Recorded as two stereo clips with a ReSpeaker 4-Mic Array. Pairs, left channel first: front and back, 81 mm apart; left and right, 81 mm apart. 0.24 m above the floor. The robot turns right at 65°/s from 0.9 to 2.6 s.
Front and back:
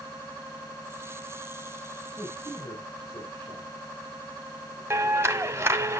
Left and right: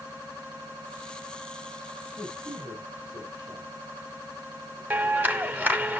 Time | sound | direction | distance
2.2 | a man speaking | 85° right | 7.5 m
4.9 | a clap | 145° right | 1.1 m